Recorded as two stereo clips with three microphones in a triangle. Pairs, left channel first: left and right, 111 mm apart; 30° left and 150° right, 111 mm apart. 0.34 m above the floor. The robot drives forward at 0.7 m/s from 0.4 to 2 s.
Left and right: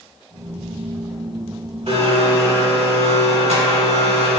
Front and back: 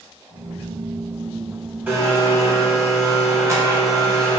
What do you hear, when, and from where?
1.9 s a blender: 80° right, 0.7 m; by 4.4 s 85° right, 0.6 m